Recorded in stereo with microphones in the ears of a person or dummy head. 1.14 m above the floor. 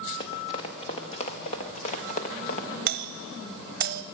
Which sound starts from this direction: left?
Running footsteps, at 0.2 s.